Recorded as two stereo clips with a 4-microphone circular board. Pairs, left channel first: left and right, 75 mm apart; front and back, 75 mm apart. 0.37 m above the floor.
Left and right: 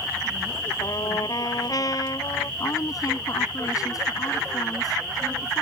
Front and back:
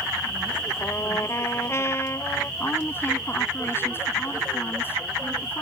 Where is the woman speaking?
60° left.